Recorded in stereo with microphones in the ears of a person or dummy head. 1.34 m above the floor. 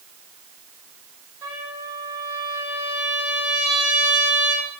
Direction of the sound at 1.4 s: 15° right (ahead or behind).